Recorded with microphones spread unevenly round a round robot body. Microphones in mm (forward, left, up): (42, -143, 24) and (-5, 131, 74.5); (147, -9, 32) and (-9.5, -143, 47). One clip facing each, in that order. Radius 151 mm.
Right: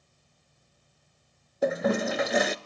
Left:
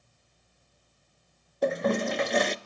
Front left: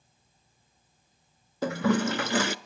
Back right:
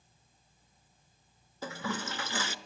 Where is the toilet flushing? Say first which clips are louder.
Right 1 dB, front left 12 dB; 10° left, 0.8 m.